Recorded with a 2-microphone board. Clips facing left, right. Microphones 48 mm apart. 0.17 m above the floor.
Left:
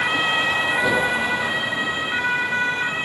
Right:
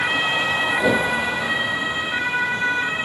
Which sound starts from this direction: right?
A whoosh, at 0.8 s.